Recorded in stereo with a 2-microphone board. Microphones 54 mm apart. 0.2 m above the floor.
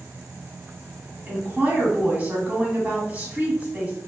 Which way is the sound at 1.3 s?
30° right (ahead or behind).